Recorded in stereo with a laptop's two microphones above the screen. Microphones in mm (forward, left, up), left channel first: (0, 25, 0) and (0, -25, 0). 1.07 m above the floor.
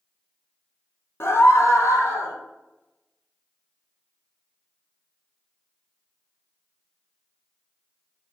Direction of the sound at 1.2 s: 55° left (ahead or behind).